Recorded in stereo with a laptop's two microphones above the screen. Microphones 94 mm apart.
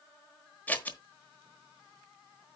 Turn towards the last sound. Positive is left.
turn(degrees=20)  # may be behind; listen again after turning